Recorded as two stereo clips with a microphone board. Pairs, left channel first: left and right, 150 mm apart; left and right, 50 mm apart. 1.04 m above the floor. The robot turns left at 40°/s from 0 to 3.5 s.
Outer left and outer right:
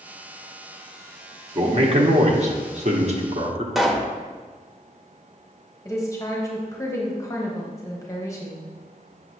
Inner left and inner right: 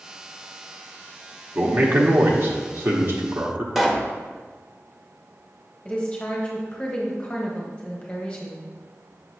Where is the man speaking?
45° right, 1.1 m; by 3.6 s 125° right, 1.1 m.